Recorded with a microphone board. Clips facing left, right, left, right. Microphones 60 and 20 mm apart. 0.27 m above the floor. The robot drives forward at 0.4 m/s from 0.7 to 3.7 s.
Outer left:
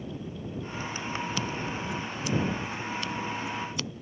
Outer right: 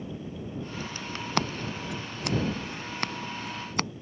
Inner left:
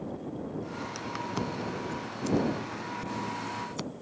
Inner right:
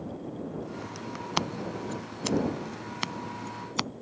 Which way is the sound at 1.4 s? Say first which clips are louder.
Outer right 2 dB, inner right 6 dB; 60° right (ahead or behind).